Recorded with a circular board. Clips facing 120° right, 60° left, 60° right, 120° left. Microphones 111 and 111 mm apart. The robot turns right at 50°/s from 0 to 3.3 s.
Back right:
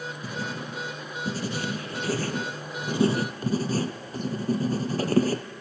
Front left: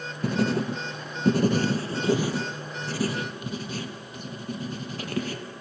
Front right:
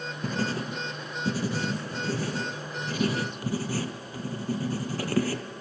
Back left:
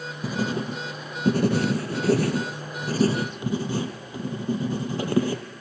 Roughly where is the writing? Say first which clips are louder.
Front left 12 dB, back left 3 dB; ahead left.